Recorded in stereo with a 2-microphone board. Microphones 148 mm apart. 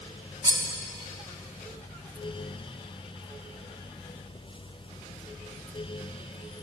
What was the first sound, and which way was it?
Cutlery clinking, 30° right (ahead or behind).